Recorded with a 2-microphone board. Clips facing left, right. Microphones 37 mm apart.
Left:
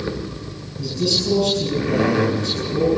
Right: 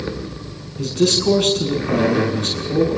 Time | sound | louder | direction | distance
0.8 | a man speaking | right 4 dB | 75° right (ahead or behind) | 8 m